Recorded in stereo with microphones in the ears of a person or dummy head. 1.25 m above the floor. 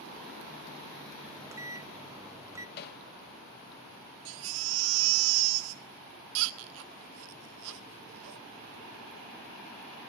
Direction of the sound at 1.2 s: 20° right (ahead or behind).